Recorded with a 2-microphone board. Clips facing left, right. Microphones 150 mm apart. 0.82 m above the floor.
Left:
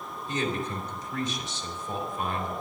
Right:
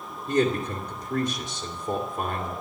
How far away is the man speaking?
About 2.5 m.